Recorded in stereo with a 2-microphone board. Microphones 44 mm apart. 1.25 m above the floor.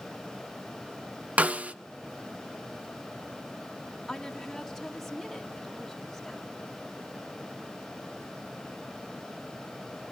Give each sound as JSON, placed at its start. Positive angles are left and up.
{"t": 1.4, "sound": "a snare drum", "side_deg": -35, "distance_m": 0.5}
{"t": 4.1, "sound": "a woman speaking", "side_deg": 5, "distance_m": 1.9}